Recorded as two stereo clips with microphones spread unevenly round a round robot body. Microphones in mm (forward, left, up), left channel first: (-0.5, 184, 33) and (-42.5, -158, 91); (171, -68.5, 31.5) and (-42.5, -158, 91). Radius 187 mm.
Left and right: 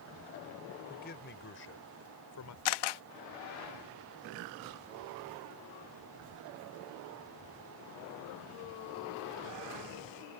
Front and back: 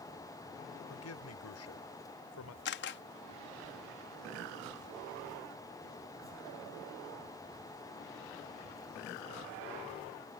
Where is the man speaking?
15° left; by 2.5 s 40° left.